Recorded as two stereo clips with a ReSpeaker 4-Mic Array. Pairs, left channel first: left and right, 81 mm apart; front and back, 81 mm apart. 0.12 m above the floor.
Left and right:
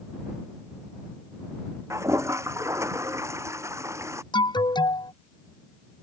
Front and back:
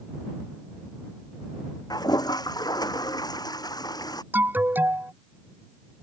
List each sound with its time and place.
1.9 s a toilet flushing: 35° right
4.3 s an alarm: 115° left